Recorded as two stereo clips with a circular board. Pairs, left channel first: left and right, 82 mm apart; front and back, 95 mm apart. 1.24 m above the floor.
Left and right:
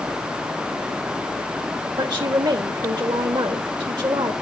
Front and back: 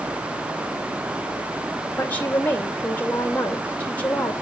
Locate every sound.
2.0 s a woman speaking: 70° right, 2 m